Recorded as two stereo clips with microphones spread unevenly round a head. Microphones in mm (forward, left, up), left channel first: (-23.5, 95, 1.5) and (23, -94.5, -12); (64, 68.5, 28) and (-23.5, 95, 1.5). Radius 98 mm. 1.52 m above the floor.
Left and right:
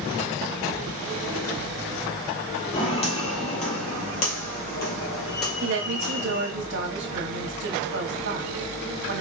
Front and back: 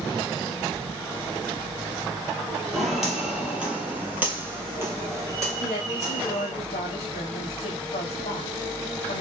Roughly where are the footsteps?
Ahead left.